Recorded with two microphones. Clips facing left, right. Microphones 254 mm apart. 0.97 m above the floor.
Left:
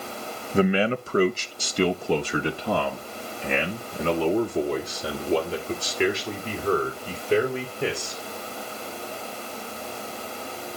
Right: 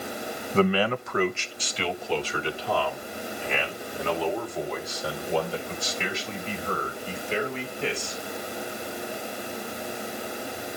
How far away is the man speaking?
About 0.7 m.